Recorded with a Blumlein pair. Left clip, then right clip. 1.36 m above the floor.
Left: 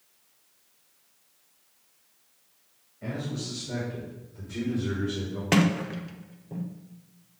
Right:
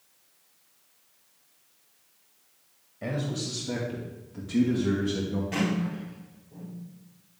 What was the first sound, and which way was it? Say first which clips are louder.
A man speaking: right 3 dB; 25° right.